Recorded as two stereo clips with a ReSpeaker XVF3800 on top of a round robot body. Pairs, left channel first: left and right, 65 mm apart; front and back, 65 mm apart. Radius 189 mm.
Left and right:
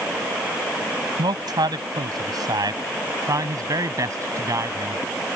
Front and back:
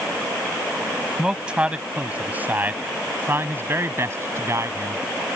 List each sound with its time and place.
1.2 s a man speaking: 100° right; by 5.0 s 135° right